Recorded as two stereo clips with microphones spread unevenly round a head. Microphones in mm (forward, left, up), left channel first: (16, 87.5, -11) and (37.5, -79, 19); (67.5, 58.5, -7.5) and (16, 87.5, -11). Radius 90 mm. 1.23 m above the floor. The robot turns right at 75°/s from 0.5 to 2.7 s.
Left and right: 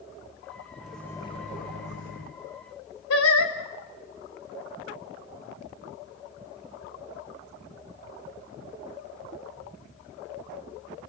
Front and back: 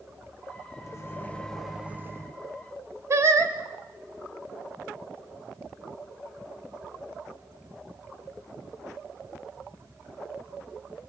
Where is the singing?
115° left, 2.5 m.